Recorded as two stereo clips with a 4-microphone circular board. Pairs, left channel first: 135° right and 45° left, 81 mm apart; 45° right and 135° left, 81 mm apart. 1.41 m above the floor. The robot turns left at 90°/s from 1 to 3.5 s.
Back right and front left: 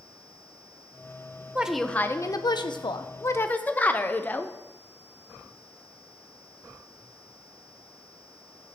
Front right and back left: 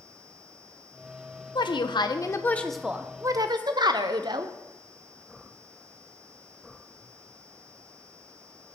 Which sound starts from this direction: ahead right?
A woman speaking, at 1.6 s.